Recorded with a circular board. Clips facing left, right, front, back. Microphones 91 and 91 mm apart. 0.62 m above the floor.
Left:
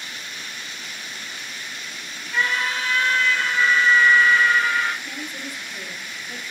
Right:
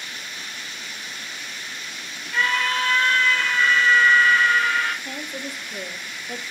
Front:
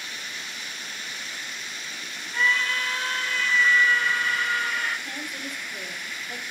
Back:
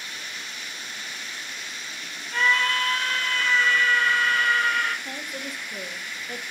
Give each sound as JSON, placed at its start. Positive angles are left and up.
{"t": 2.3, "sound": "a scream", "azimuth_deg": 165, "distance_m": 4.0}
{"t": 5.0, "sound": "a woman speaking", "azimuth_deg": -120, "distance_m": 2.5}